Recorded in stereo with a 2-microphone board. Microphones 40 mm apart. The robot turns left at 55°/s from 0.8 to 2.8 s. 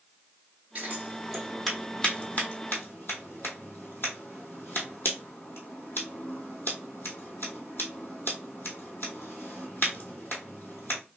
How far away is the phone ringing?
I don't hear a phone ringing.